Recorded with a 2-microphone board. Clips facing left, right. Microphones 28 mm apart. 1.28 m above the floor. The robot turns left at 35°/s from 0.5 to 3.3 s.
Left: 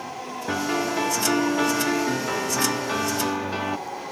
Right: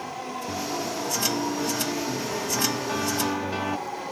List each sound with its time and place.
0.5 s a piano: 110° left; by 3.8 s 10° left